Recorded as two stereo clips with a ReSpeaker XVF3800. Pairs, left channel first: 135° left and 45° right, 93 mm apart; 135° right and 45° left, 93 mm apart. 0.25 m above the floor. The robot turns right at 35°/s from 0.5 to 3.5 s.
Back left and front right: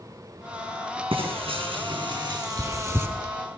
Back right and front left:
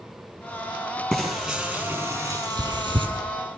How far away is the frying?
About 7.5 m.